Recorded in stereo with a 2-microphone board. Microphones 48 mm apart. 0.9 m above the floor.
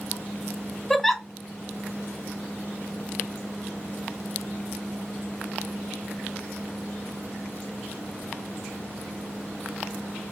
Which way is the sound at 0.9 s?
5° left (ahead or behind).